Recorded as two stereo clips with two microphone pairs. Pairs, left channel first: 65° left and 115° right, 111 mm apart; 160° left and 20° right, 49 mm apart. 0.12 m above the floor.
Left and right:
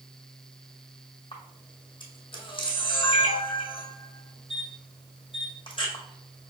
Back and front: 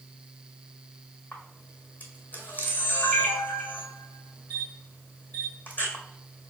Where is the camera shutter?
105° left, 1.7 m.